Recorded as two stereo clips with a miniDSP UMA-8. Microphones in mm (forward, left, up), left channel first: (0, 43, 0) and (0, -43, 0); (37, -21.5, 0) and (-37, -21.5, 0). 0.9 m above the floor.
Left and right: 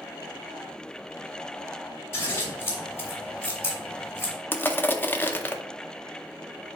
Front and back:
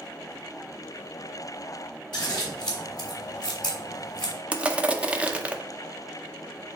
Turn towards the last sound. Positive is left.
turn(degrees=130)